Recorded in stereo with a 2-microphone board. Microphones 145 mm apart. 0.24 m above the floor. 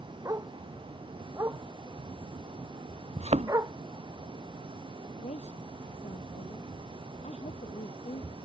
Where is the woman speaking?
50° left (ahead or behind).